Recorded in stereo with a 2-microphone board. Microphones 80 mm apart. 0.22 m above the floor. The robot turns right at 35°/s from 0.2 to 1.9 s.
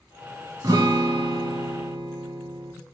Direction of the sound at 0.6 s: 130° right.